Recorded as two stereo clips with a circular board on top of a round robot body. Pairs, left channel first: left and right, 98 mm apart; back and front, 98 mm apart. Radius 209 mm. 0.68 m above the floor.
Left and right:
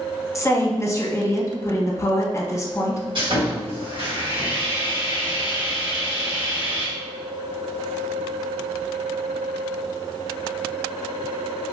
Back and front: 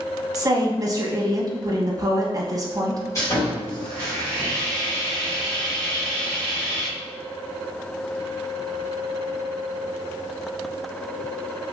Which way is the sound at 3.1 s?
125° right.